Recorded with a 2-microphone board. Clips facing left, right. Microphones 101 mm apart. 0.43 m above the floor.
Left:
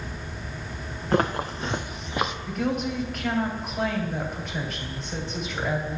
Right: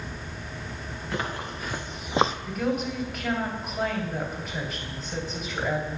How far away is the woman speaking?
About 2.5 m.